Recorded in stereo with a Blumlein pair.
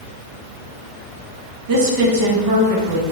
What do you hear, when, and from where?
1.7 s a woman speaking: 50° right, 1.0 m